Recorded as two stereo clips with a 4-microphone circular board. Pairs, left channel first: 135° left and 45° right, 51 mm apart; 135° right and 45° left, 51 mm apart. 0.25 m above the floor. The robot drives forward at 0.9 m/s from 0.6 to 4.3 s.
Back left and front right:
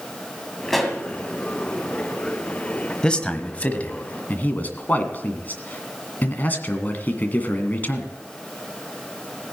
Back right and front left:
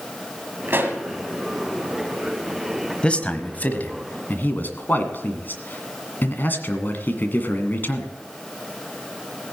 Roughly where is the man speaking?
Behind.